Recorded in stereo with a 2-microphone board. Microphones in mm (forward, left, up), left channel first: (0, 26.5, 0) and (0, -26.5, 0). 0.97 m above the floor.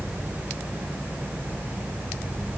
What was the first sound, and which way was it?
Only background noise.